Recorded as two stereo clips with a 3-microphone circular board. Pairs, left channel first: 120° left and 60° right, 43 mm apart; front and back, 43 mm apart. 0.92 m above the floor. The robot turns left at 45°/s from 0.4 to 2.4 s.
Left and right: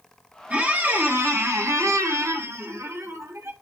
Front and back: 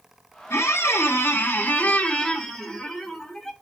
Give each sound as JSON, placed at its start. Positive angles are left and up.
{"t": 0.5, "sound": "a squeak", "azimuth_deg": 0, "distance_m": 0.6}